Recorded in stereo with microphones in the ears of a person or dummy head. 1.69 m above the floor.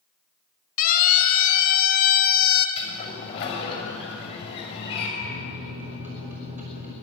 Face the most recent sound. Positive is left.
turn(degrees=-40)  # may be behind; listen again after turning